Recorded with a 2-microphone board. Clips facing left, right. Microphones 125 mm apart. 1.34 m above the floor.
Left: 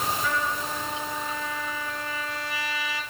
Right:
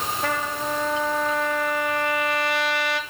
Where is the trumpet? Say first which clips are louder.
Right 2 dB; 70° right (ahead or behind), 1.4 m.